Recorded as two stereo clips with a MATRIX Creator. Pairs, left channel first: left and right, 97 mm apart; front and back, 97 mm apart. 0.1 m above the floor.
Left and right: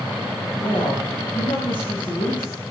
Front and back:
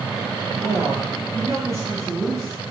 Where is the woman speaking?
120° left, 8 m.